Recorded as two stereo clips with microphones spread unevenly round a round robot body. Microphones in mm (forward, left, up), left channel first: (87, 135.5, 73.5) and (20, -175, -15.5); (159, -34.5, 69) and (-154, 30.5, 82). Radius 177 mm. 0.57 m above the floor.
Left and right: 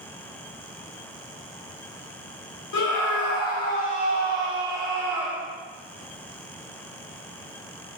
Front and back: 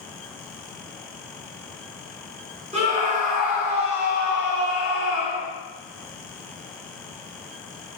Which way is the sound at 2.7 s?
105° left.